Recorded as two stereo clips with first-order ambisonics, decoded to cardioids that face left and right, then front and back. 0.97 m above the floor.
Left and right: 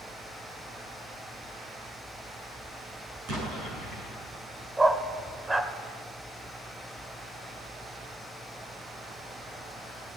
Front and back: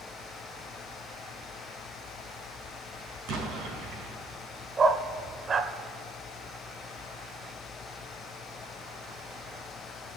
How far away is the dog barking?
About 0.7 m.